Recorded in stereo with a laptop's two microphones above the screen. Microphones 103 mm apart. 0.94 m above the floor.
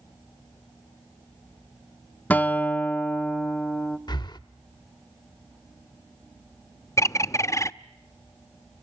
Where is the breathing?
45° left (ahead or behind), 0.7 m.